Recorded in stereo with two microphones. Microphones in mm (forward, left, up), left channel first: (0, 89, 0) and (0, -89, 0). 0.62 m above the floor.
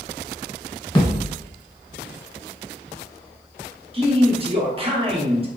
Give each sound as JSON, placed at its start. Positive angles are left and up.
{"t": 0.9, "sound": "a thud", "side_deg": 25, "distance_m": 1.3}
{"t": 3.9, "sound": "a man speaking", "side_deg": -30, "distance_m": 1.0}